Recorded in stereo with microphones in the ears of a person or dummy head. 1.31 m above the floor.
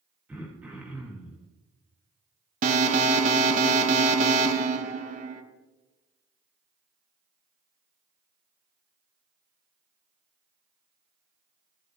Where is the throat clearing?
5° right (ahead or behind), 1.8 m.